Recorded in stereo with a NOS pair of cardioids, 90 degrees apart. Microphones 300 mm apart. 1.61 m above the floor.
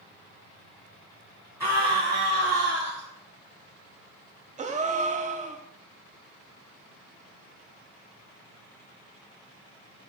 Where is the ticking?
I don't hear ticking.